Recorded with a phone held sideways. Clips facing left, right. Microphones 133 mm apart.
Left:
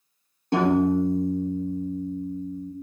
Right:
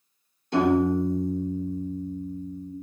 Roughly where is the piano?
Left.